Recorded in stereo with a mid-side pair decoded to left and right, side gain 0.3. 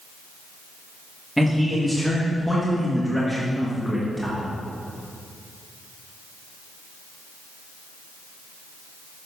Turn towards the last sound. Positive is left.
turn(degrees=0)